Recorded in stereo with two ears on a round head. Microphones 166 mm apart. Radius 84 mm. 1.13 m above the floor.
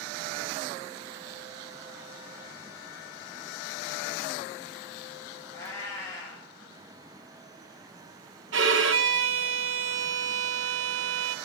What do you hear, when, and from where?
5.5 s a cat meowing: 15° left (ahead or behind), 4 m
8.5 s a violin: 70° right (ahead or behind), 0.8 m